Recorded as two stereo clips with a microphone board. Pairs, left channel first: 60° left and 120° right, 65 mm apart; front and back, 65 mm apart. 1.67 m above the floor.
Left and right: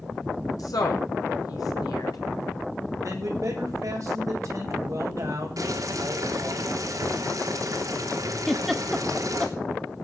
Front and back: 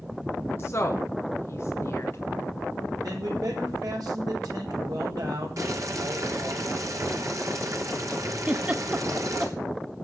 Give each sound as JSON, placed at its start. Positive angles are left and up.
{"t": 0.6, "sound": "a woman speaking", "azimuth_deg": 50, "distance_m": 1.6}
{"t": 3.0, "sound": "a man speaking", "azimuth_deg": -160, "distance_m": 7.0}
{"t": 5.6, "sound": "boiling", "azimuth_deg": -145, "distance_m": 3.0}
{"t": 8.5, "sound": "a giggle", "azimuth_deg": 145, "distance_m": 1.1}